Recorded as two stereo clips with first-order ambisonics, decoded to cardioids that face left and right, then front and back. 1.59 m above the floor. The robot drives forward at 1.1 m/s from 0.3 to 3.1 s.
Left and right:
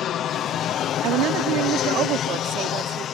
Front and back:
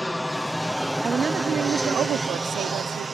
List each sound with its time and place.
0.0 s an aircraft: 85° left; by 3.1 s 115° left
1.0 s a woman speaking: 110° right; by 3.0 s 140° right